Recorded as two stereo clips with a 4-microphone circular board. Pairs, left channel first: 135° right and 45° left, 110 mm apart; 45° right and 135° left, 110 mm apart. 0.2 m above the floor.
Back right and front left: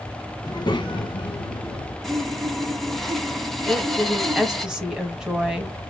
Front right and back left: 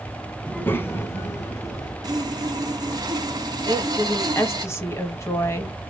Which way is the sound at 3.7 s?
30° right.